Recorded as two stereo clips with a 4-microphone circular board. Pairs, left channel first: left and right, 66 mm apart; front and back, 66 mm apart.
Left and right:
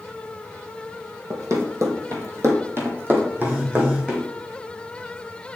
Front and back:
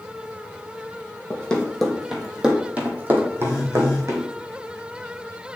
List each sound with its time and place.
1.3 s running footsteps: 70° right, 1.7 m; by 4.3 s 160° right, 2 m
3.4 s a phone buzzing: 25° right, 2.5 m